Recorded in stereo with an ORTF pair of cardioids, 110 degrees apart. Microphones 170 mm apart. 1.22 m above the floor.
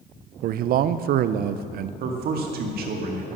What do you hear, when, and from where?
0.4 s a man speaking: 60° right, 0.5 m
2.0 s a man speaking: 60° right, 1.9 m